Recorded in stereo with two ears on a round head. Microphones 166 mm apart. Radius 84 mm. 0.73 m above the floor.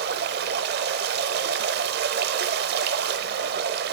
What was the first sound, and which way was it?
Running water, 55° right (ahead or behind).